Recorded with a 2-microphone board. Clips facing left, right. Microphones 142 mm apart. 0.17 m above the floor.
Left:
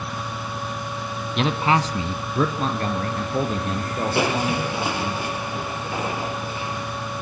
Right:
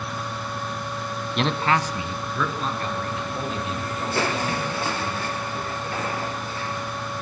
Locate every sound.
1.4 s a man speaking: centre (ahead or behind), 1.0 m; by 5.2 s 55° left (ahead or behind), 5.5 m
4.2 s crushing: 15° left (ahead or behind), 2 m